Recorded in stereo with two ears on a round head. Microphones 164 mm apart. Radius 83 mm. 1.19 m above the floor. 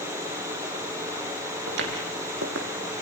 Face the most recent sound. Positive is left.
turn(degrees=-65)  # may be behind; listen again after turning